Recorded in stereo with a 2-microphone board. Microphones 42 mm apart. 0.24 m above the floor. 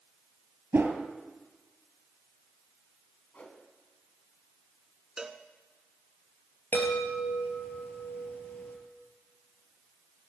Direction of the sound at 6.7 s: 50° left (ahead or behind).